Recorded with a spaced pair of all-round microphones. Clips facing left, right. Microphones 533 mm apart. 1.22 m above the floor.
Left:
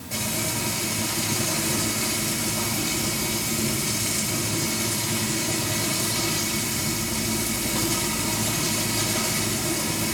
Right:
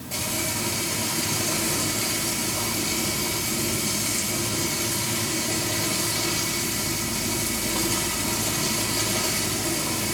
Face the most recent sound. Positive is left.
turn(degrees=40)  # may be behind; listen again after turning